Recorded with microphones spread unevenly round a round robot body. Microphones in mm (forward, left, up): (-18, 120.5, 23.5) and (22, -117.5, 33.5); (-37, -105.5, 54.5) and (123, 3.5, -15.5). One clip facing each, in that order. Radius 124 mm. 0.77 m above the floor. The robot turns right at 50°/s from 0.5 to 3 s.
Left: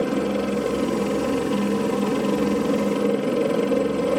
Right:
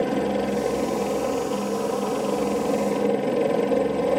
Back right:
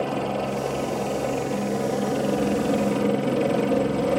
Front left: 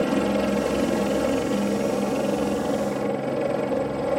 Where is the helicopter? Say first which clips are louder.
Left 1 dB, front left 4 dB; 35° left; by 4.2 s 160° left.